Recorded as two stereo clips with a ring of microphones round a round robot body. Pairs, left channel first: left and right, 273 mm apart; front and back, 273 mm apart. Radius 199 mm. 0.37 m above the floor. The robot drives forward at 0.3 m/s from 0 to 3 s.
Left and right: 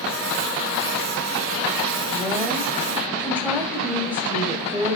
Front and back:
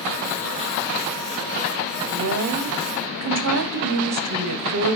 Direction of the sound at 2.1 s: 175° right.